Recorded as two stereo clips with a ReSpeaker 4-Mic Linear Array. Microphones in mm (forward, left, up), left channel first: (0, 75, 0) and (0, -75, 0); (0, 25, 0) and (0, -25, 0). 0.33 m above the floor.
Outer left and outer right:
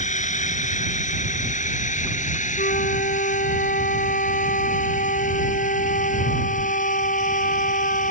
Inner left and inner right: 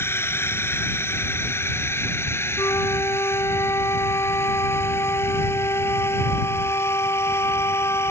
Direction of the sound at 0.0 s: 50° left (ahead or behind).